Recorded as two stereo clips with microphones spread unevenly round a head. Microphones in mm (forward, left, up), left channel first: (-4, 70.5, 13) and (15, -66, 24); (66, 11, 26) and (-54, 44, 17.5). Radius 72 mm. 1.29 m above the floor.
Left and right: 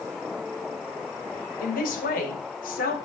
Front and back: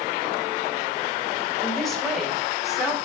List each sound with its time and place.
1.6 s a man speaking: 70° left, 5 m; by 3.0 s 80° left, 3.5 m